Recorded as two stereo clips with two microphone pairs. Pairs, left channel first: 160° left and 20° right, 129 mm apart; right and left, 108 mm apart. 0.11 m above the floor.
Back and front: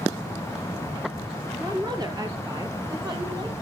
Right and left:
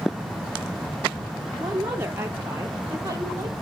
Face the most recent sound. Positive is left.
turn(degrees=30)